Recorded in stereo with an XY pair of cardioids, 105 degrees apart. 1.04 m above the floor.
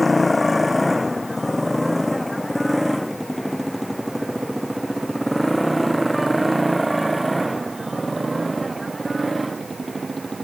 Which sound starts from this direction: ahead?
A motorcycle, at 0.0 s.